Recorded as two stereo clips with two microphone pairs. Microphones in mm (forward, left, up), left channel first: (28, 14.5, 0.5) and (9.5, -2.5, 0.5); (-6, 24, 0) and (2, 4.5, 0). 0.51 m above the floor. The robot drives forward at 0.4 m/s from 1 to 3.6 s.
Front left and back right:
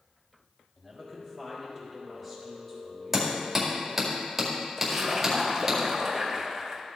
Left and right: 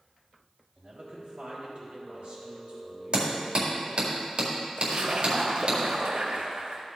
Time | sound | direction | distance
0.8 | a man speaking | 30° right | 3.5 m
3.1 | hammering | 55° right | 2.0 m
4.8 | a splash | 60° right | 1.2 m